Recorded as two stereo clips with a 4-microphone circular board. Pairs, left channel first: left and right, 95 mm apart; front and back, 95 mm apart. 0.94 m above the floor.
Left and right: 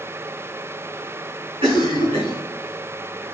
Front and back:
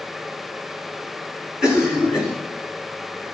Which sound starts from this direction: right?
A cough, at 1.6 s.